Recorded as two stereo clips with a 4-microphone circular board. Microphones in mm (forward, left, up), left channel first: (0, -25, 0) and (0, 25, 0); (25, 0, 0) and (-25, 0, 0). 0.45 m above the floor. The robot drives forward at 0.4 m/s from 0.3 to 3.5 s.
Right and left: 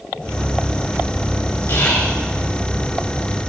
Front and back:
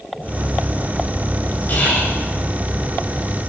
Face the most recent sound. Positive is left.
turn(degrees=-65)